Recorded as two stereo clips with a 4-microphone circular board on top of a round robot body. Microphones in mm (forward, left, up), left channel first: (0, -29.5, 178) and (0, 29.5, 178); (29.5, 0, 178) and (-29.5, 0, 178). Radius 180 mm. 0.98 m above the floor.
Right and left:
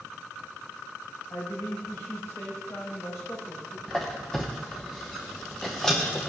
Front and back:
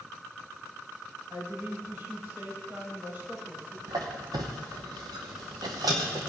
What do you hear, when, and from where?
1.3 s a woman speaking: 125° right, 6.5 m
3.9 s a squeak: 175° right, 0.7 m